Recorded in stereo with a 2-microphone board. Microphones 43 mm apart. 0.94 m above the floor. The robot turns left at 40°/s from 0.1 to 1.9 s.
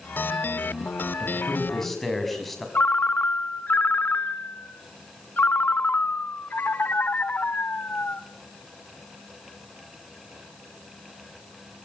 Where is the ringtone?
40° left (ahead or behind), 0.9 m.